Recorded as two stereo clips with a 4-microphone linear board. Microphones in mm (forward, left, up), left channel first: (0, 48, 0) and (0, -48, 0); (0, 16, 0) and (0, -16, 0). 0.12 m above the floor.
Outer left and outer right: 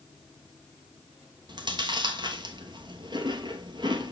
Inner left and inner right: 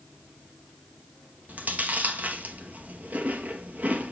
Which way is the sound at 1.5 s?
50° right (ahead or behind).